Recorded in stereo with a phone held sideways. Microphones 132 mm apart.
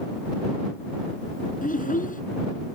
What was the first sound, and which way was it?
A child speaking, 75° left (ahead or behind).